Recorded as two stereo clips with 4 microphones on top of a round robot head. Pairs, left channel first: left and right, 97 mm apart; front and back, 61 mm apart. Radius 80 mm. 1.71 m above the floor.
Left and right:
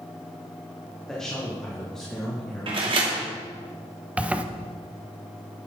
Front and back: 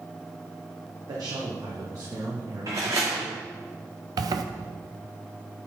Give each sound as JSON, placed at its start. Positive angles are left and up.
{"t": 1.1, "sound": "a man speaking", "azimuth_deg": 175, "distance_m": 1.7}
{"t": 2.7, "sound": "a door slam", "azimuth_deg": -120, "distance_m": 2.0}
{"t": 4.2, "sound": "a zipper", "azimuth_deg": -170, "distance_m": 0.8}